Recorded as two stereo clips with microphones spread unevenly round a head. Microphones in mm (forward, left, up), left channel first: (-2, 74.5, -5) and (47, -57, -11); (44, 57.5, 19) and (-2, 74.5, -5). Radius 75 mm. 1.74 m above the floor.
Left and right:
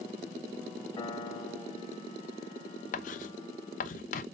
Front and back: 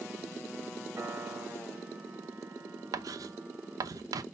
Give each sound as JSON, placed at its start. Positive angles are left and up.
{"t": 1.0, "sound": "a piano", "azimuth_deg": 110, "distance_m": 1.7}
{"t": 2.9, "sound": "writing", "azimuth_deg": 150, "distance_m": 0.7}